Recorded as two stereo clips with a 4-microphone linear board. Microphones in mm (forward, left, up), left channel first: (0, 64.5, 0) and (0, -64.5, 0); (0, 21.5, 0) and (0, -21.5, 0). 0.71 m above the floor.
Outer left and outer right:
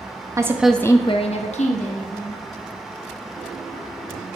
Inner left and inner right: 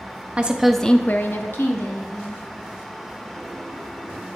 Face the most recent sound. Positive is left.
turn(degrees=65)  # may be behind; listen again after turning